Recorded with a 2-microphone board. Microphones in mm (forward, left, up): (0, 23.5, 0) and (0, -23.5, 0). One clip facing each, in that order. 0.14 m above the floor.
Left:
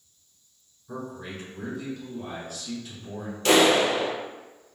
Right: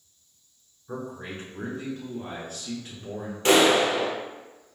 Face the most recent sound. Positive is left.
turn(degrees=-30)  # may be behind; listen again after turning